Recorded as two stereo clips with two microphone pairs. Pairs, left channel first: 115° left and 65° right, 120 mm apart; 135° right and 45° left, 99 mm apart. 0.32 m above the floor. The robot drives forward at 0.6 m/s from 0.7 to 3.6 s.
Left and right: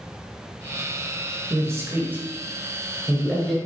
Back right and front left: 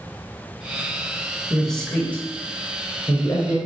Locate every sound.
1.5 s a man speaking: 45° right, 1.1 m; by 3.6 s 155° right, 1.4 m